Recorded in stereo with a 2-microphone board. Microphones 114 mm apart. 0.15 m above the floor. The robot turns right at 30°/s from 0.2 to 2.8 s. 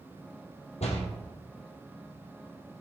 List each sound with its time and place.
0.8 s a door slam: 75° left (ahead or behind), 3 m; by 1.0 s 70° left (ahead or behind), 3 m